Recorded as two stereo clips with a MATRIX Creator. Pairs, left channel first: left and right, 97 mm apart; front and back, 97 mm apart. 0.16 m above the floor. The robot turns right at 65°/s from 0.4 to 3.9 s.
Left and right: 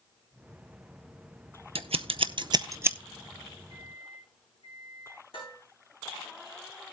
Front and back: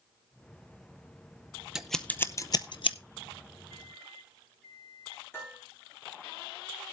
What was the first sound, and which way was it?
Scissors, 95° right.